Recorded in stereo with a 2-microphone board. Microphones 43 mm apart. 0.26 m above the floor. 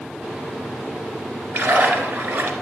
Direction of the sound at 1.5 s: 45° right (ahead or behind).